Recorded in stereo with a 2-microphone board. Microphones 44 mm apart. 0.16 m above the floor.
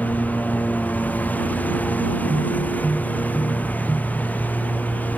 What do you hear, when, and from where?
0.0 s a lawn mower: 35° left (ahead or behind)